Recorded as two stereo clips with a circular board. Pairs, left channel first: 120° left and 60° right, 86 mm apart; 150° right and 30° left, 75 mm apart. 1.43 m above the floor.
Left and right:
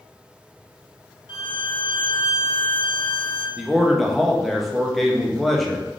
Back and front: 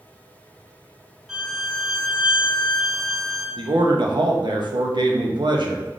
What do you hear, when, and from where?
1.3 s a violin: 115° left, 0.6 m
3.6 s a man speaking: 30° left, 0.6 m